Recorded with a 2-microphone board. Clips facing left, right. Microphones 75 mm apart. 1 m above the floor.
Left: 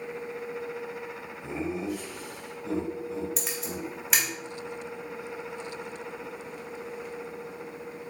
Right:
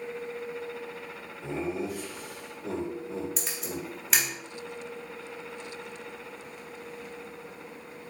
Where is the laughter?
50° right (ahead or behind), 2.5 m.